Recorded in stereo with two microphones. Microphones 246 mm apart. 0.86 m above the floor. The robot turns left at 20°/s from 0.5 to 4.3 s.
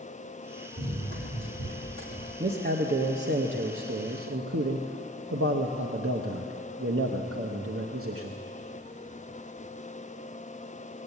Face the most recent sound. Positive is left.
turn(degrees=-80)